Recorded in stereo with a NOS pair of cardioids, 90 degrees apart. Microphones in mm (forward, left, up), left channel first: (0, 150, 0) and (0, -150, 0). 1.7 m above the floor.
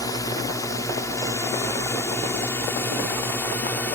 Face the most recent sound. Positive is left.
turn(degrees=5)